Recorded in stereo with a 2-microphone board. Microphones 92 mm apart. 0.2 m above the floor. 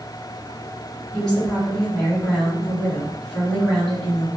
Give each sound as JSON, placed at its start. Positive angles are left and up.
{"t": 1.1, "sound": "a woman speaking", "side_deg": 0, "distance_m": 1.8}